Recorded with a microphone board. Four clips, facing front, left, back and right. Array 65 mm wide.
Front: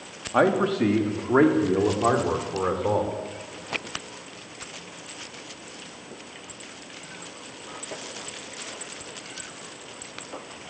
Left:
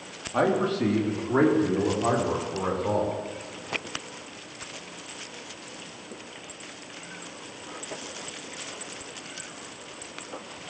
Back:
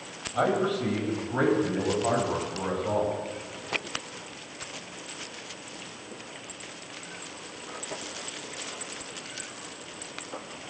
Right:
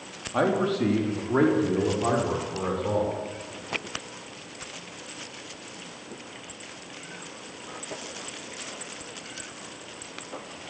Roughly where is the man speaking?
Ahead.